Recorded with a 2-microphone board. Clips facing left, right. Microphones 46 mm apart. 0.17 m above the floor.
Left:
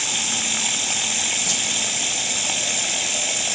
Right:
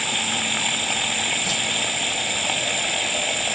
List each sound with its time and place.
0.0 s running water: 15° right (ahead or behind)
1.4 s a whoosh: 10° right (ahead or behind)